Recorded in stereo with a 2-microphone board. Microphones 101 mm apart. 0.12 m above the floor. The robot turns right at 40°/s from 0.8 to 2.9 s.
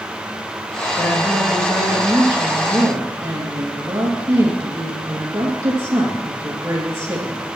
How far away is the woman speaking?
About 3 m.